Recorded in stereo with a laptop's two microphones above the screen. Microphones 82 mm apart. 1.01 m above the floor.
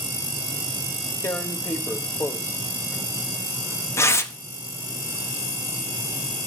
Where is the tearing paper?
35° left (ahead or behind), 0.7 m.